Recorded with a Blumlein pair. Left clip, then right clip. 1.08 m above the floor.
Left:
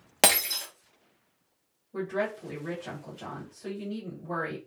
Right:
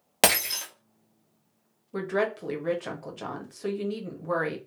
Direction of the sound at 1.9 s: 65° right.